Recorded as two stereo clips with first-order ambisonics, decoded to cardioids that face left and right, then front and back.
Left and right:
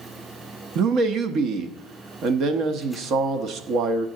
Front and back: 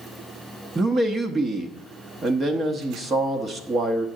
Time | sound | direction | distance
0.8 | a man speaking | 115° right | 0.8 m